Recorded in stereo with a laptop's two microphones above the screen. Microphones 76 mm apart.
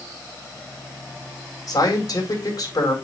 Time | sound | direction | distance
1.7 | a man speaking | 55° left (ahead or behind) | 4 m